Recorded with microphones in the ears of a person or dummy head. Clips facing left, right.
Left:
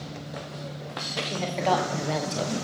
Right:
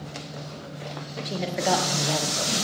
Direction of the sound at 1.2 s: 15° right (ahead or behind).